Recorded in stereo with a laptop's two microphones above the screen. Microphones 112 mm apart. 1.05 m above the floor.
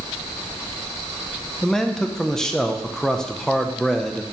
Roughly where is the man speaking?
Centre.